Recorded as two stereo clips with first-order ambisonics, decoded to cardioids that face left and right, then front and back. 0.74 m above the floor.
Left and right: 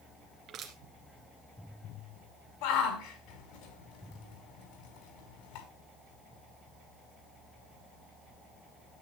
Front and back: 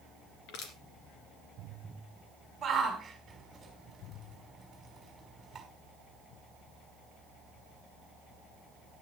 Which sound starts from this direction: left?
A shout, at 2.6 s.